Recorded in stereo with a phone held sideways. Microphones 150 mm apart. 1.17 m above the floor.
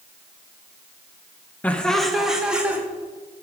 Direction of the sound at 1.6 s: 10° left (ahead or behind).